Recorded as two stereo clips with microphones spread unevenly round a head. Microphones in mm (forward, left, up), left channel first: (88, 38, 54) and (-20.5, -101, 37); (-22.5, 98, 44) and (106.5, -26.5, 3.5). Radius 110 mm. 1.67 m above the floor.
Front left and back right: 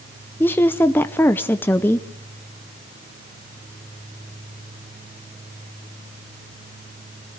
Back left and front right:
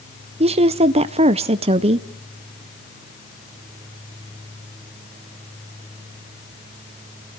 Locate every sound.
0.4 s a woman speaking: straight ahead, 0.5 m